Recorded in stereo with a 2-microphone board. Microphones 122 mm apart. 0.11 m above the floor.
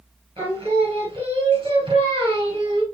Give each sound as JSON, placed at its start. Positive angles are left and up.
{"t": 0.4, "sound": "singing", "side_deg": -45, "distance_m": 2.5}